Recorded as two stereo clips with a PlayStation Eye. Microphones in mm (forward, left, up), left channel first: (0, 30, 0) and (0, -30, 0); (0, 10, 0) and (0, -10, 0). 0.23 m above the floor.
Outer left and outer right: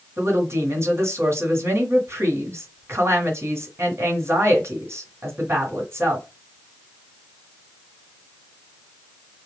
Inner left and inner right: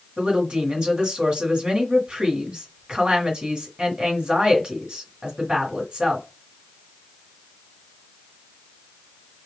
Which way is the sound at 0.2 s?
55° right (ahead or behind).